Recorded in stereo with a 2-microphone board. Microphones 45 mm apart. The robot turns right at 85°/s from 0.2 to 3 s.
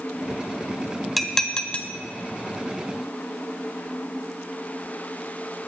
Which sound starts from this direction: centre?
Dishes clattering, at 1.2 s.